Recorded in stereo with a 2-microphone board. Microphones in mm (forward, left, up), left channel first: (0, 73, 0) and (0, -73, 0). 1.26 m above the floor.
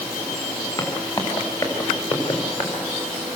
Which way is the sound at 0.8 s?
25° left (ahead or behind).